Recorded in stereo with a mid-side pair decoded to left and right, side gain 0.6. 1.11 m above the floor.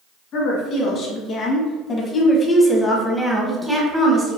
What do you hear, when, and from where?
0.3 s a woman speaking: 60° left, 1.9 m; by 4.4 s 25° right, 1.2 m